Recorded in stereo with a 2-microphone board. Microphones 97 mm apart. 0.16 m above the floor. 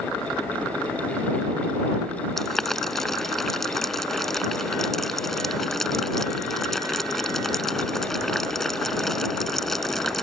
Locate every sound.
2.4 s boiling: 5° left (ahead or behind)